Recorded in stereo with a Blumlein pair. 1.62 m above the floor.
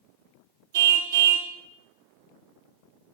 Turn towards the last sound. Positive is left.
turn(degrees=-60)